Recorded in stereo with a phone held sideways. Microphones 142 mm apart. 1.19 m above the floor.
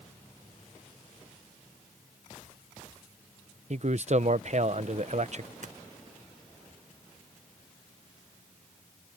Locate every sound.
3.7 s a man speaking: 55° right (ahead or behind)
5.6 s tapping: 60° right (ahead or behind)